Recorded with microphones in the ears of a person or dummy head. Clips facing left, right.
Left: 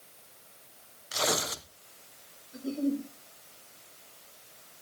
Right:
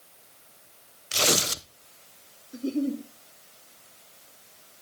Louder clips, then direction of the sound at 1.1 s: Right 4 dB; 30° right (ahead or behind).